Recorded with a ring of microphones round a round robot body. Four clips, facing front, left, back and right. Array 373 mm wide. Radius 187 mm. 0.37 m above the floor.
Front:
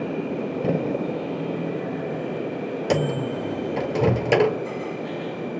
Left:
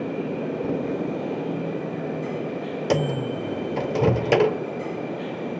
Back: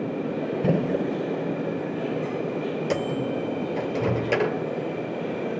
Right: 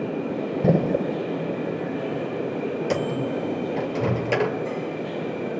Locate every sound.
0.6 s a gunshot: 105° right, 1.0 m
2.9 s a microwave: 50° left, 1.1 m